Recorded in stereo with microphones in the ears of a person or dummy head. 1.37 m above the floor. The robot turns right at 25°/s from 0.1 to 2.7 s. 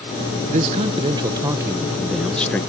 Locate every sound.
0.5 s a man speaking: 40° right; by 2.6 s 10° left